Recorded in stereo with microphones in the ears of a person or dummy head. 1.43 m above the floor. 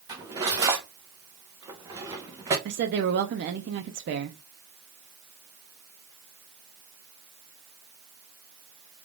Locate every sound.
0.1 s cutlery clinking: 15° right (ahead or behind), 0.7 m
2.6 s a woman speaking: 50° right (ahead or behind), 0.6 m